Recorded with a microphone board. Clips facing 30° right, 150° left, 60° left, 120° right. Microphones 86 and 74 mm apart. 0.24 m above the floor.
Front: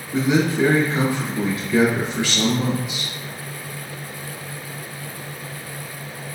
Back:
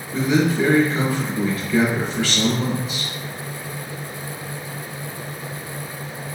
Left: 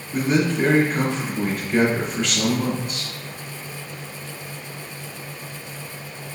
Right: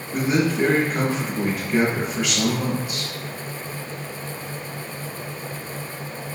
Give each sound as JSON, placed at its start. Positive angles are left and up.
{"t": 0.1, "sound": "a man speaking", "azimuth_deg": -50, "distance_m": 1.0}